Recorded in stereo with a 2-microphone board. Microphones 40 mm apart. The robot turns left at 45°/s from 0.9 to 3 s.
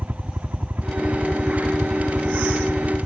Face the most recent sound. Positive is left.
turn(degrees=-165)